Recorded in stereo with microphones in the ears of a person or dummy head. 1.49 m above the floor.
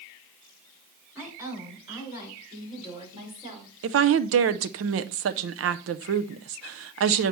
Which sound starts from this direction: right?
A woman speaking, at 3.8 s.